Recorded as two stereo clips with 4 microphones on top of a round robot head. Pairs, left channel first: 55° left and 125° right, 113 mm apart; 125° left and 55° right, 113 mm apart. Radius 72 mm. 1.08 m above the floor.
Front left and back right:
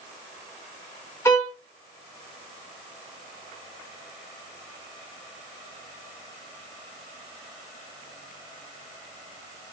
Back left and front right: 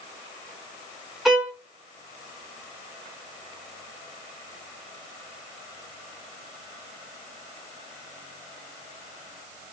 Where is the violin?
25° left, 0.7 m.